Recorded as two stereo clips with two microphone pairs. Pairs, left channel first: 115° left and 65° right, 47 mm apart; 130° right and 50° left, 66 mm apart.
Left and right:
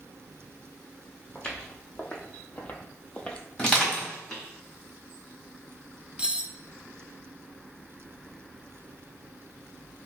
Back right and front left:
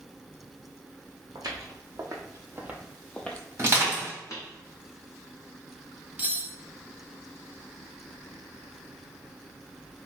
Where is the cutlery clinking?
10° right, 0.6 m.